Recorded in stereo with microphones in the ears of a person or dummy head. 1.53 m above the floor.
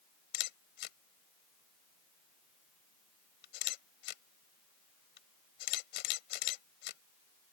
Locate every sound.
0.3 s a camera shutter: 65° left (ahead or behind)